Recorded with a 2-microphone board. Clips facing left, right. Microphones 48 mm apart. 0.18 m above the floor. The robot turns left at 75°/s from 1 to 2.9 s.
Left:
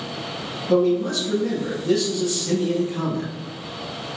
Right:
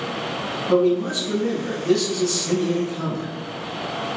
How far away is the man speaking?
About 1.2 m.